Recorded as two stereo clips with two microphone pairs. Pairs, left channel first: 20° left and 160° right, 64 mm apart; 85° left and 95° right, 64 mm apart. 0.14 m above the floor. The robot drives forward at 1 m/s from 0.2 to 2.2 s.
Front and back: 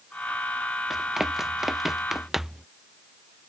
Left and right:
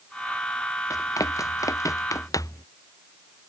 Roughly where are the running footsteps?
Behind left.